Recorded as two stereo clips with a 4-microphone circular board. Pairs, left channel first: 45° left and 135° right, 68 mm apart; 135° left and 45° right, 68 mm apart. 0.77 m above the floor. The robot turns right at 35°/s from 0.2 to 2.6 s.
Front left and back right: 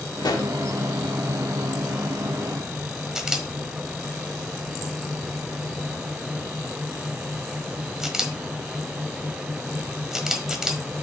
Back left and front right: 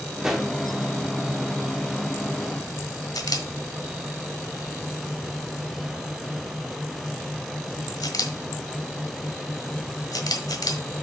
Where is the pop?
35° left, 1.1 m; by 0.5 s 45° left, 1.1 m.